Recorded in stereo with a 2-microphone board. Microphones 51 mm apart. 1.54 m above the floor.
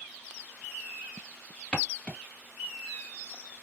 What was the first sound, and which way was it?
Footsteps, 20° left (ahead or behind).